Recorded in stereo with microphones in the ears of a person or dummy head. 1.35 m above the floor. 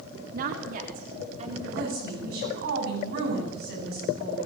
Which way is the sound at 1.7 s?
65° right (ahead or behind).